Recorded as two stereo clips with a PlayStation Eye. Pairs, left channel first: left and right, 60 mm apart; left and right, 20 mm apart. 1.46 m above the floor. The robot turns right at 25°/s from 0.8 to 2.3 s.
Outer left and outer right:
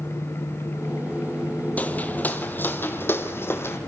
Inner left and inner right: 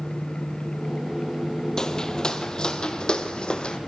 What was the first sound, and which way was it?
Footsteps, 25° left (ahead or behind).